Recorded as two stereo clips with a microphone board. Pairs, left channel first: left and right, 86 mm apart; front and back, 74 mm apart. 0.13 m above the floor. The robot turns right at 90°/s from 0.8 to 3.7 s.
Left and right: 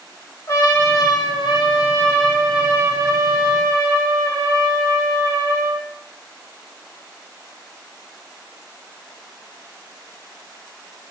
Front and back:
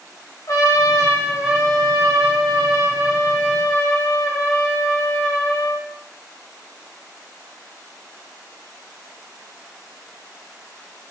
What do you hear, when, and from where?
0.5 s a trumpet: 40° left, 10 m; by 5.9 s 55° right, 10 m